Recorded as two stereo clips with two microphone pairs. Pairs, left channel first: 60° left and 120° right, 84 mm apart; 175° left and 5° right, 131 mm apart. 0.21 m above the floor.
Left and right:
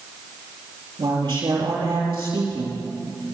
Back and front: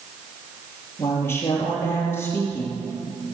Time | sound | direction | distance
1.0 | a woman speaking | 115° right | 5.5 m